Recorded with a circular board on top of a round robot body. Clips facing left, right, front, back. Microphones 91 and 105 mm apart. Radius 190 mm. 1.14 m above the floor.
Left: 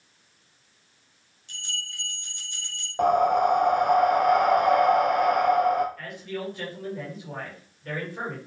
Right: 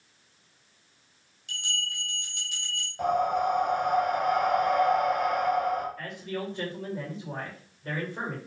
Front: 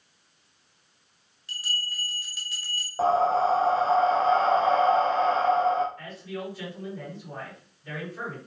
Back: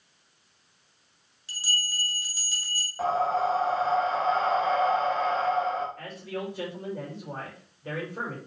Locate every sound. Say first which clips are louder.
1.5 s a bell: right 3 dB, back 1 dB; 120° right, 3 m
3.0 s breathing: left 5 dB, front 4 dB; 60° left, 0.7 m
6.0 s a man speaking: even, back 1 dB; 150° right, 6.5 m